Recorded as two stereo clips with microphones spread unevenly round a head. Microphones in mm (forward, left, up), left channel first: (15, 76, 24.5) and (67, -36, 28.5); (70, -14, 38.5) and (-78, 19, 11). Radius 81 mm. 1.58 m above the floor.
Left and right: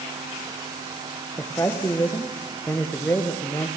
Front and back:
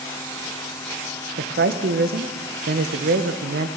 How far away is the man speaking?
About 1.5 m.